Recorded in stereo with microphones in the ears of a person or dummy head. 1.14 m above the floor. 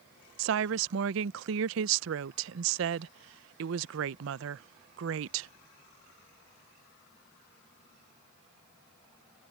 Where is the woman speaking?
70° right (ahead or behind).